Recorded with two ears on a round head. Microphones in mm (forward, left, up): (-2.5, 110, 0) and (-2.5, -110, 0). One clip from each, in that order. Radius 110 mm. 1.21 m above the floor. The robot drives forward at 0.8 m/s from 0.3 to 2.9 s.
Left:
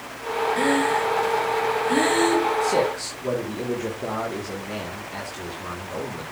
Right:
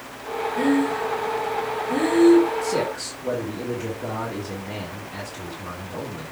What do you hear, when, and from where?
0.6 s breathing: 60° left (ahead or behind), 1.1 m; by 2.5 s 45° left (ahead or behind), 1.4 m
2.6 s a man speaking: 25° left (ahead or behind), 2 m